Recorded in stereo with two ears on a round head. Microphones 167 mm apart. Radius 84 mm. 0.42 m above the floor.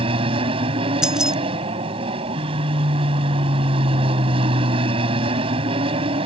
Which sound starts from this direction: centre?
Keys jangling, at 1.0 s.